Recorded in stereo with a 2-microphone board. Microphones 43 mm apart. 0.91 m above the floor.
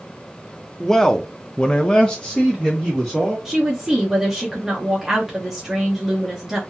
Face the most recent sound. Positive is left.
turn(degrees=-5)  # may be behind; listen again after turning